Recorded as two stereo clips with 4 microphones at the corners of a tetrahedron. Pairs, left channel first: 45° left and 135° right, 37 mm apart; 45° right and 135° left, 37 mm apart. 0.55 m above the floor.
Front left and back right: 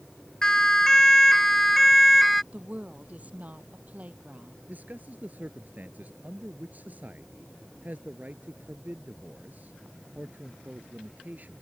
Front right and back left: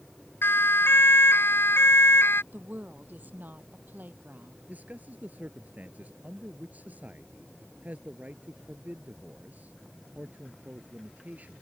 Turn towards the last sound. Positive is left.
turn(degrees=180)